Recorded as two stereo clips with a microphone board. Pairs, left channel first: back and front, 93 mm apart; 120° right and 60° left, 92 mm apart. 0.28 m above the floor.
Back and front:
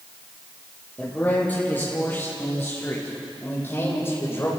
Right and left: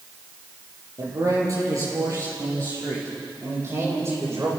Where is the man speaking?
110° left, 7 m; by 4.5 s 115° left, 11 m.